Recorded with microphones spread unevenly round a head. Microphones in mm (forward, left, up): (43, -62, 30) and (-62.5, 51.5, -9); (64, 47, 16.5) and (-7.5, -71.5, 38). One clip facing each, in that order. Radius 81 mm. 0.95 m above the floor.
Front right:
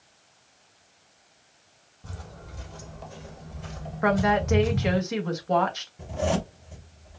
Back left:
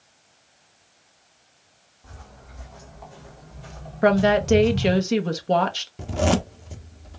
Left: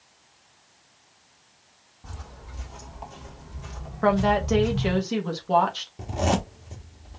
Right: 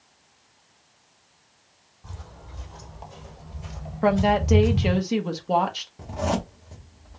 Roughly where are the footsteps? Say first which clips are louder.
Front right 3 dB, left 1 dB; ahead.